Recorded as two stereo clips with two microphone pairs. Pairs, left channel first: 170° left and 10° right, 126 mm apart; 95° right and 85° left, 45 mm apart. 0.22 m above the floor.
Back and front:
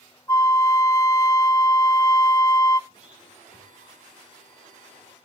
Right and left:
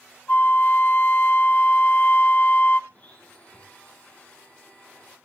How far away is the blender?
About 8.5 m.